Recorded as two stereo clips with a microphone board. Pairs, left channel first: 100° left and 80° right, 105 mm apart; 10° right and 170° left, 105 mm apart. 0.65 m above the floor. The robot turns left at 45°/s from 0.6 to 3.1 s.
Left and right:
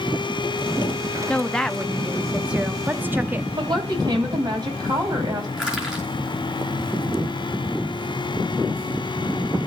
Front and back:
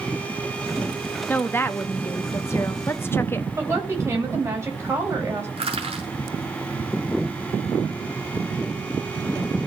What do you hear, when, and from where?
1.3 s a woman speaking: 35° left, 0.8 m; by 3.5 s 45° right, 0.8 m
3.6 s a woman speaking: 125° right, 4 m
5.6 s crushing: 165° right, 6 m